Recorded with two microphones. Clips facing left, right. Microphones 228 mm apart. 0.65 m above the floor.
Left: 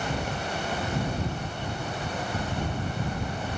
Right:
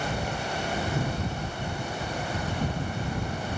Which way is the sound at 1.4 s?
55° right (ahead or behind).